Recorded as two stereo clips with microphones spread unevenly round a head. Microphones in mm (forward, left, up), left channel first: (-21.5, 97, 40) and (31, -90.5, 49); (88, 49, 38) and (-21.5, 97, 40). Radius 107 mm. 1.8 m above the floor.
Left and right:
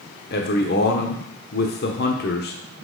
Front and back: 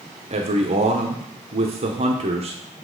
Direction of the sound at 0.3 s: 140° left.